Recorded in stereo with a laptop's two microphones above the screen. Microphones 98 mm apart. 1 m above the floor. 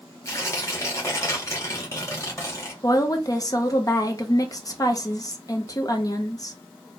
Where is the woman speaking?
35° left (ahead or behind), 0.5 m.